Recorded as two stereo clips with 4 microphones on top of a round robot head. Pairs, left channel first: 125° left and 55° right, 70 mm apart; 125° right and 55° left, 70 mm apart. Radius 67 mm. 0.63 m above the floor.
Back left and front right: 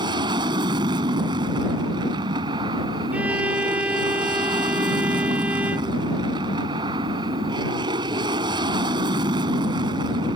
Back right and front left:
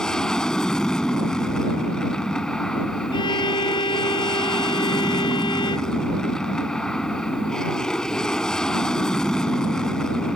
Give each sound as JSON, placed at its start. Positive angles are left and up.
{"t": 0.0, "sound": "an aircraft", "azimuth_deg": -45}
{"t": 3.1, "sound": "a violin", "azimuth_deg": -125}